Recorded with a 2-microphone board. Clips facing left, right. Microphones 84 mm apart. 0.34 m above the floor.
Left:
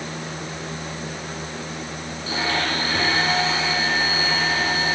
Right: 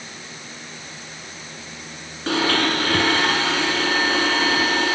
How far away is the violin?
No violin in this recording.